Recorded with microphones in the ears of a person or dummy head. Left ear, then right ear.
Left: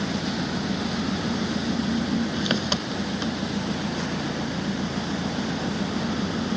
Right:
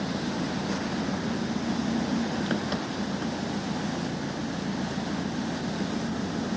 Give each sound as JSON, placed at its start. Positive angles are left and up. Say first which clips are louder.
{"t": 0.0, "sound": "an engine running", "louder": "left 3 dB", "side_deg": 40}